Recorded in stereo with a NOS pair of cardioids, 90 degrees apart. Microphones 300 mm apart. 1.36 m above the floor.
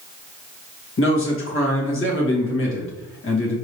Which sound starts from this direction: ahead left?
A man speaking, at 1.0 s.